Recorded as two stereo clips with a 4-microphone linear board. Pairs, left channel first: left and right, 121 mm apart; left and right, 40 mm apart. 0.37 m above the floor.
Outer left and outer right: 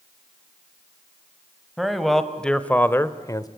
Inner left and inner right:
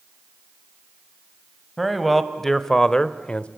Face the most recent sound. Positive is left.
turn(degrees=30)  # may be behind; listen again after turning